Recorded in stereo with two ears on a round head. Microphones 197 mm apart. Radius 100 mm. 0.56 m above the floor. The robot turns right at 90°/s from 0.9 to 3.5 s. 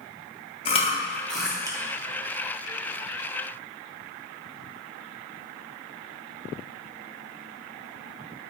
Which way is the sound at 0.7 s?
30° left (ahead or behind).